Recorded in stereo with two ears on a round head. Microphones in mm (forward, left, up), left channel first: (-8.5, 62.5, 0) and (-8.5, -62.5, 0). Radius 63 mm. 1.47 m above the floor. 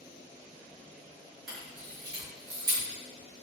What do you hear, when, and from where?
1.5 s a camera shutter: 80° right, 1.3 m